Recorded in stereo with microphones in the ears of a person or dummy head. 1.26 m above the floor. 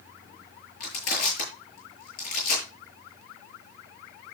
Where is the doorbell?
I don't hear a doorbell.